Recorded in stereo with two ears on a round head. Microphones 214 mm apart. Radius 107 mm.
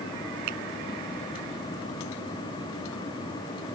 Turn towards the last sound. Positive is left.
turn(degrees=-85)